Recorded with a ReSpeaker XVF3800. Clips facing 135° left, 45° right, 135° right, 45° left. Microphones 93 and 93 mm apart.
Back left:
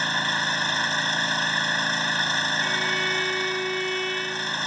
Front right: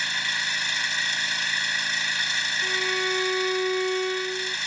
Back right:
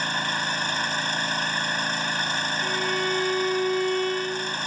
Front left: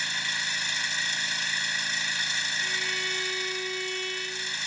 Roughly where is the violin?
Right.